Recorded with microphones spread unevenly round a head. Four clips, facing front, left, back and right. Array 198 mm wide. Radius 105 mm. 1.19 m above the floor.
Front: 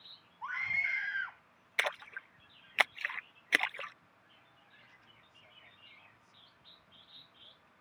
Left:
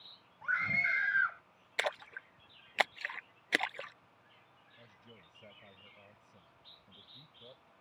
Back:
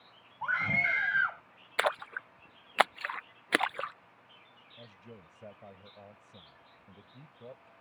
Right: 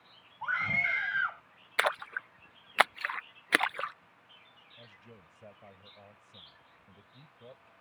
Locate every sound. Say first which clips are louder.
0.4 s a scream: right 2 dB, back 7 dB; 170° right
1.8 s a splash: right 6 dB, back 7 dB; 140° right
4.8 s a man speaking: right 4 dB, back 12 dB; 165° right